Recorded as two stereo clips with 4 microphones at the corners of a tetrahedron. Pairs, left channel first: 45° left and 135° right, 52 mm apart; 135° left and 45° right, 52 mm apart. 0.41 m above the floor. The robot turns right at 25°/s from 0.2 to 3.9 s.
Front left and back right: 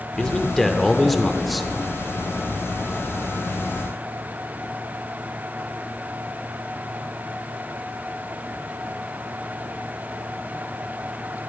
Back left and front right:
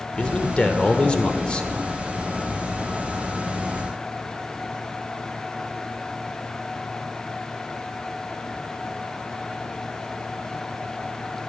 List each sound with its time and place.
0.2 s a man speaking: 100° left, 1.1 m; by 1.7 s 135° left, 1.1 m